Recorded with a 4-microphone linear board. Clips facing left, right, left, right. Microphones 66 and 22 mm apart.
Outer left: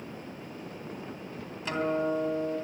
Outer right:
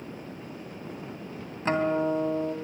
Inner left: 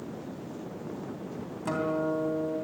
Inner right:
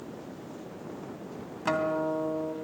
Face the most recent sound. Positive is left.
turn(degrees=-35)  # may be behind; listen again after turning